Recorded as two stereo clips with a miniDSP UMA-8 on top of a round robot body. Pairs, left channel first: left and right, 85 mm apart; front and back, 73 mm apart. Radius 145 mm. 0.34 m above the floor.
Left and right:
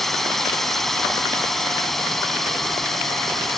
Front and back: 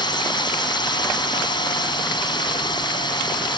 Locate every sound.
0.0 s a drone: straight ahead